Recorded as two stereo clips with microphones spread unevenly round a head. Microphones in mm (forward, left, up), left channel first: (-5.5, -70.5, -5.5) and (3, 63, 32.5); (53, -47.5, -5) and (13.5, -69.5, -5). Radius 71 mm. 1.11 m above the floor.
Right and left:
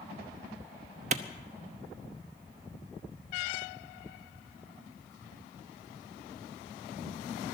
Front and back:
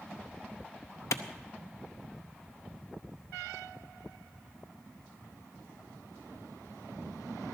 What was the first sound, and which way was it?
A clap, 50° left.